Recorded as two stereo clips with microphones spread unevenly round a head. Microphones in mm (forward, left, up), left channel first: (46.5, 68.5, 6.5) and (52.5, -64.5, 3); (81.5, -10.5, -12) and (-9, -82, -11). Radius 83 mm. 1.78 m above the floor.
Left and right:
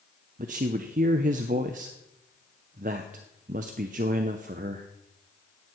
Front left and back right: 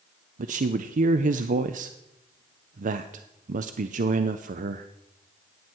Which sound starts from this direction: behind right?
A man speaking, at 0.4 s.